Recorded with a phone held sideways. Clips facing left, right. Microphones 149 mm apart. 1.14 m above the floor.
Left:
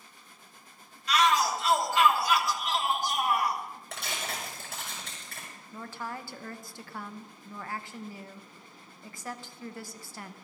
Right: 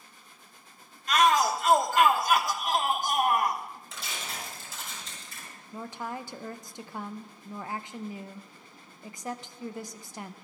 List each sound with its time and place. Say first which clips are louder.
1.1 s a shout: right 2 dB; 55° right (ahead or behind), 1.0 m
3.9 s tearing paper: left 4 dB; 70° left (ahead or behind), 5.5 m
5.7 s a woman speaking: right 2 dB; 20° right (ahead or behind), 0.7 m